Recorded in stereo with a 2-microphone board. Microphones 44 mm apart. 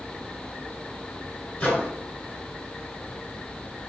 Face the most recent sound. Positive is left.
turn(degrees=35)  # may be behind; listen again after turning